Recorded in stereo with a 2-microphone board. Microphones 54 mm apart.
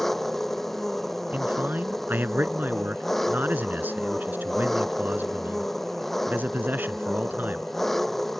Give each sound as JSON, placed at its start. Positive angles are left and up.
{"t": 0.0, "sound": "an engine running", "side_deg": 5}
{"t": 1.3, "sound": "a man speaking", "side_deg": -35}